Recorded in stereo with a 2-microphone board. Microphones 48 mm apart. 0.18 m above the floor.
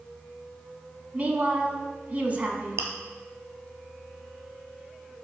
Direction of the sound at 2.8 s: 75° right (ahead or behind).